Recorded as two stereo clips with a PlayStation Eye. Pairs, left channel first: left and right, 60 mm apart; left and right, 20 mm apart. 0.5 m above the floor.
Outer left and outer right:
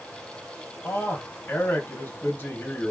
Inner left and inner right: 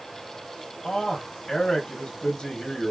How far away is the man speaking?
About 1.8 m.